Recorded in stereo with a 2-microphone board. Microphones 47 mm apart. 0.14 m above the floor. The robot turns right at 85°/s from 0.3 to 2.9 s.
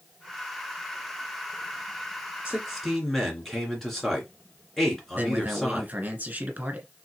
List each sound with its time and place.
2.5 s a man speaking: 30° right, 2.5 m; by 5.9 s 5° left, 2.5 m
5.2 s a man speaking: 35° right (ahead or behind), 1.6 m